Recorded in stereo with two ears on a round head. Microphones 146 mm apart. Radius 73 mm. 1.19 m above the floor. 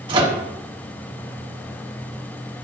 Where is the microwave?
30° right (ahead or behind), 1.6 m.